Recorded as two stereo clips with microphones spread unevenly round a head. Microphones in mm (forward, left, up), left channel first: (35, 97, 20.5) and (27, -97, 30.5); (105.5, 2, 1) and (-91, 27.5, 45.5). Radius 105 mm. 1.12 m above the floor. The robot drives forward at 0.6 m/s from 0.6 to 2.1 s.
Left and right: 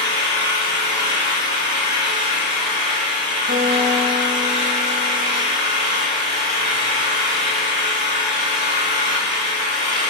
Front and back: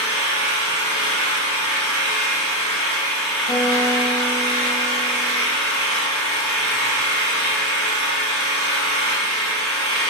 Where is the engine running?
160° left, 1.9 m; by 10.1 s 165° left, 2.5 m.